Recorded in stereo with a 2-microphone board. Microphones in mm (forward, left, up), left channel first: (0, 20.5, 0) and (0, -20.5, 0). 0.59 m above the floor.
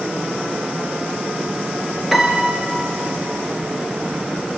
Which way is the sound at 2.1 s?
5° right (ahead or behind).